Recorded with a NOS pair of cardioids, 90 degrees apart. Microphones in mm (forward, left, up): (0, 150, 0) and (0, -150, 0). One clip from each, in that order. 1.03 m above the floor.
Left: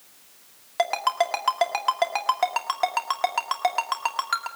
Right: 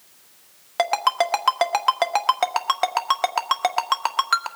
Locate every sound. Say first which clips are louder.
0.8 s a ringtone: right 3 dB; 25° right, 1.5 m